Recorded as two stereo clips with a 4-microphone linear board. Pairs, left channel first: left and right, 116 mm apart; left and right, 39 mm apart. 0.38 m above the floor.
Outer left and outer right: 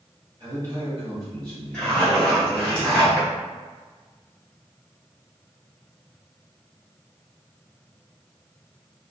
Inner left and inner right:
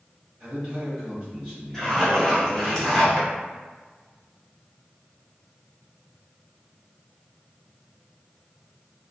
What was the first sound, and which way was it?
A man speaking, 30° right (ahead or behind).